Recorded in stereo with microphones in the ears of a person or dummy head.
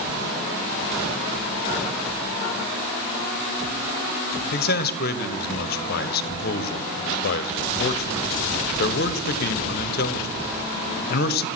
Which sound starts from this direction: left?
A man speaking, at 4.5 s.